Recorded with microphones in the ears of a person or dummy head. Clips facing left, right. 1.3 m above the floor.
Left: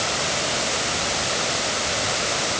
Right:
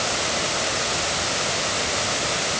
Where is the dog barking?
I don't hear a dog barking.